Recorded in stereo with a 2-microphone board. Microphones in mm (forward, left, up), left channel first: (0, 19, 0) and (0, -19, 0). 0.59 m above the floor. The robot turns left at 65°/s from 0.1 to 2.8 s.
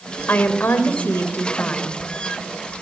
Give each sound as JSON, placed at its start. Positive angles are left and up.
{"t": 0.3, "sound": "a woman speaking", "azimuth_deg": 125, "distance_m": 2.5}